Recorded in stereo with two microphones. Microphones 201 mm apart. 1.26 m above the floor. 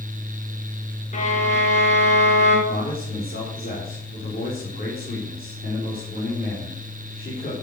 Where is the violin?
40° left (ahead or behind), 4.5 m.